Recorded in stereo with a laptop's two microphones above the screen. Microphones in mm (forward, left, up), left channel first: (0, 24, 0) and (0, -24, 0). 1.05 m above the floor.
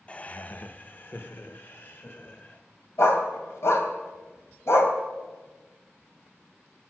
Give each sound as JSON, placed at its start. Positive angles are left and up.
{"t": 0.1, "sound": "laughter", "side_deg": 25, "distance_m": 0.5}
{"t": 3.0, "sound": "a dog barking", "side_deg": 70, "distance_m": 2.5}